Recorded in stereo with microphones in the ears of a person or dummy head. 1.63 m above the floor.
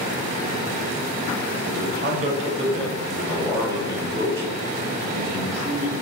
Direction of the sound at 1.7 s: 50° right (ahead or behind).